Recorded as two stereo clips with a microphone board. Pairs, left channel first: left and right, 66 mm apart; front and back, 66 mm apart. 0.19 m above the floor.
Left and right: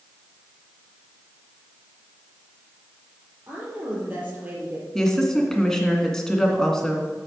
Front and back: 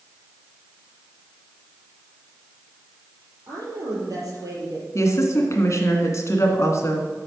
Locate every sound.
3.5 s a woman speaking: 155° right, 5 m
5.0 s a woman speaking: 10° left, 2 m